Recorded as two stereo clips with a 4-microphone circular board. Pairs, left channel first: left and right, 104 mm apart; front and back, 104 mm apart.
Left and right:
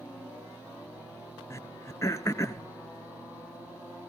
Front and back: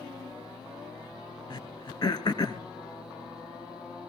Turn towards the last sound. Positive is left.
turn(degrees=35)